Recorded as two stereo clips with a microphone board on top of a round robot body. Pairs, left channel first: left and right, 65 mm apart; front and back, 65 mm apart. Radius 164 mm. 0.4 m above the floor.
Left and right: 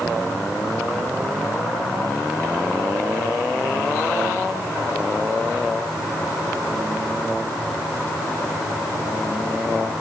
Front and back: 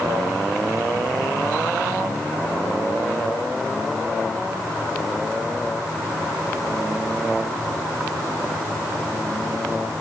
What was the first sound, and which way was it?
Only background noise.